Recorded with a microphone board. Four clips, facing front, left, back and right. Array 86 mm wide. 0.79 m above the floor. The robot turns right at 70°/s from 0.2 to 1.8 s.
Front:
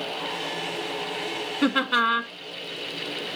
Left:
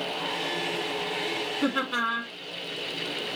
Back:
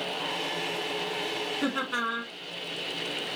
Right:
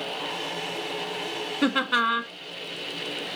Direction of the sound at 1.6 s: 50° right.